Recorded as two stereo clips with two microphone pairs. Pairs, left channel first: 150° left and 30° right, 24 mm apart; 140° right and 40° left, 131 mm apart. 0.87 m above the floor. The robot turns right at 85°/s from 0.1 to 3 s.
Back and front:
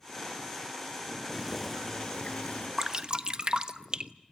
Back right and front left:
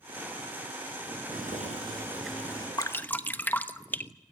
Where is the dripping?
85° right, 1.0 m; by 4.1 s 70° right, 1.0 m.